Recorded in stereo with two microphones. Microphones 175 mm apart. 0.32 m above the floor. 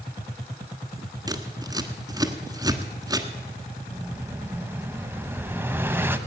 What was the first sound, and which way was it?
Scissors, 20° right (ahead or behind).